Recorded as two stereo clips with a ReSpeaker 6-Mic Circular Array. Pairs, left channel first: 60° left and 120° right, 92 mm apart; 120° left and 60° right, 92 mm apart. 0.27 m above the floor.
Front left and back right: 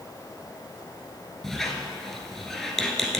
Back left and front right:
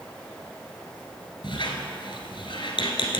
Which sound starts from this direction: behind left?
A squeak, at 1.4 s.